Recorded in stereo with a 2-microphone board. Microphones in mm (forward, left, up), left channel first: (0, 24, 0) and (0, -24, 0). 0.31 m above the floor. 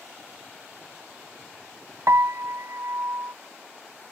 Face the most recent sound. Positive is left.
turn(degrees=-70)  # may be behind; listen again after turning